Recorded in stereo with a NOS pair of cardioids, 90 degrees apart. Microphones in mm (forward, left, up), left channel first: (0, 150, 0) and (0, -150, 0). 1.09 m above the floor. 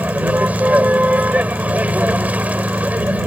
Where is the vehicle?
5° right.